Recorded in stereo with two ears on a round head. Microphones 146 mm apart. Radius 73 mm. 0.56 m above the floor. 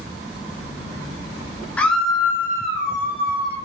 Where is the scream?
10° left (ahead or behind), 0.7 m; by 3.6 s 20° right (ahead or behind), 1.6 m.